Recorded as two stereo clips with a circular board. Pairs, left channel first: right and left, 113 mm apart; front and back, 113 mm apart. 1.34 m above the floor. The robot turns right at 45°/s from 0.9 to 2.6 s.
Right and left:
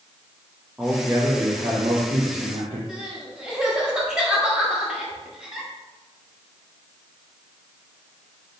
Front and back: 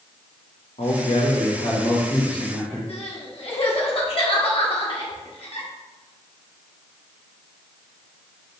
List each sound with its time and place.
0.8 s a man speaking: 10° left, 0.9 m; by 2.8 s 90° left, 0.9 m
2.9 s crying: 10° left, 1.0 m